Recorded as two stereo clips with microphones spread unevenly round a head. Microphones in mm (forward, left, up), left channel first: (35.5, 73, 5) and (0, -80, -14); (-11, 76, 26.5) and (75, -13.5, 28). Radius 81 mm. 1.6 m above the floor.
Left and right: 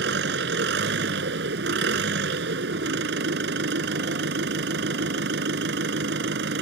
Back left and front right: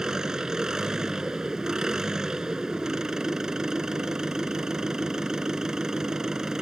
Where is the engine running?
130° right.